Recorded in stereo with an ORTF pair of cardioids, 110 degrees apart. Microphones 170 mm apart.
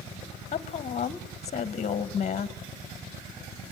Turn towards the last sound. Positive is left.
turn(degrees=40)